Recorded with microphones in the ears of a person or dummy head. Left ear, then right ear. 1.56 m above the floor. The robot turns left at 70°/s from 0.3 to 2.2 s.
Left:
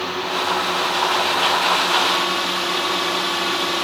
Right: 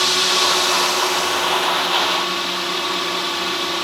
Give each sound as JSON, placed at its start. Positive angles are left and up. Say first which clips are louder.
{"t": 0.0, "sound": "a drone", "louder": "right 6 dB", "azimuth_deg": -60}